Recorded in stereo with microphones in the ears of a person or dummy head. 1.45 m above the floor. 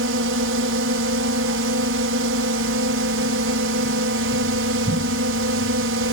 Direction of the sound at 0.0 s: 70° right (ahead or behind).